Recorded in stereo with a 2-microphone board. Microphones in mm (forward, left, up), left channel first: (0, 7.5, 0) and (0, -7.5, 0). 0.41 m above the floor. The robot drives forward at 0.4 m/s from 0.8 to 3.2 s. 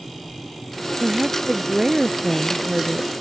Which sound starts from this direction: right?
A woman speaking, at 1.0 s.